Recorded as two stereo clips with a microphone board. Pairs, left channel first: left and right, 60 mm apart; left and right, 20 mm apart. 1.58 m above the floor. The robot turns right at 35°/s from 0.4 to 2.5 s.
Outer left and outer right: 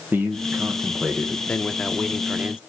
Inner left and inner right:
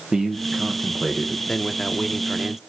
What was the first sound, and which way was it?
A man speaking, 35° right.